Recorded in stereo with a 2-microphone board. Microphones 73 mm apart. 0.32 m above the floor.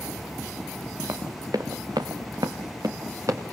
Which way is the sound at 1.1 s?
50° right (ahead or behind).